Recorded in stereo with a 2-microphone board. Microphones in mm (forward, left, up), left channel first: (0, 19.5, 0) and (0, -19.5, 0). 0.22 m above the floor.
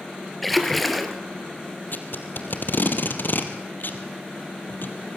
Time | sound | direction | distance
0.4 | a splash | 5° left (ahead or behind) | 2.5 m
1.9 | tape being pulled | 60° left (ahead or behind) | 3 m